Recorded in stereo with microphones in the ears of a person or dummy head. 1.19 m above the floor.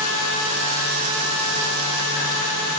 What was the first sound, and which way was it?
Only background noise.